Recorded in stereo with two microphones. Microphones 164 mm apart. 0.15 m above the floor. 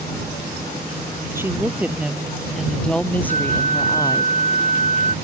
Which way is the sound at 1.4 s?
15° right (ahead or behind).